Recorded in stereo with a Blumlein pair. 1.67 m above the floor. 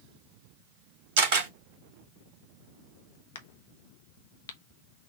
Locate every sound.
1.2 s a camera shutter: 50° right, 1.8 m
3.4 s a crack: 60° left, 0.8 m